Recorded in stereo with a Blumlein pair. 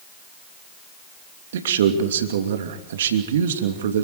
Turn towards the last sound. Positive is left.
turn(degrees=-60)